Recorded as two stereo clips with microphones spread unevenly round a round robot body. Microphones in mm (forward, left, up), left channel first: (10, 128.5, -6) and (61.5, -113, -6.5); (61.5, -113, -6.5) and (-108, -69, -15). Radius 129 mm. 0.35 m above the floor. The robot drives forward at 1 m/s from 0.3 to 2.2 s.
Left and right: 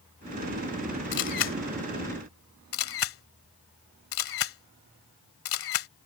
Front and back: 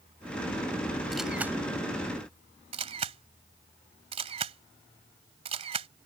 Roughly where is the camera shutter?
Left.